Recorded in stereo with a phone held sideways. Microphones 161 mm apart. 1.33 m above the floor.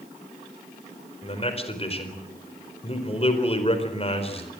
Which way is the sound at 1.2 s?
40° left (ahead or behind).